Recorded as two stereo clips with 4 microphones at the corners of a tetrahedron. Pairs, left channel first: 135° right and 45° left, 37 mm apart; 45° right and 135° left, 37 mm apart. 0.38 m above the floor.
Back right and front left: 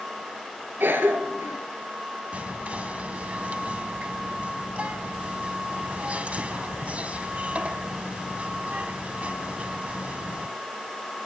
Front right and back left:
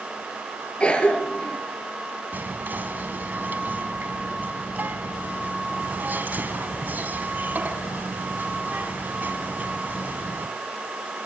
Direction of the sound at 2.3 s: 100° left.